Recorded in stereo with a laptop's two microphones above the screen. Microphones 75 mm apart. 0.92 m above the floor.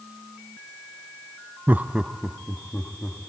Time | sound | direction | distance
1.7 | laughter | 25° right (ahead or behind) | 0.5 m